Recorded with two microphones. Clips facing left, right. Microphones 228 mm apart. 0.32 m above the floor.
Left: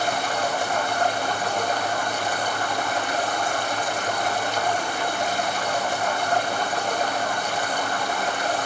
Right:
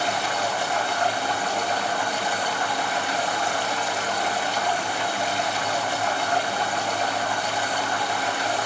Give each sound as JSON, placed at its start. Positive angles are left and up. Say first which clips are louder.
{"t": 0.0, "sound": "running water", "louder": "left 1 dB", "side_deg": 45, "distance_m": 4.0}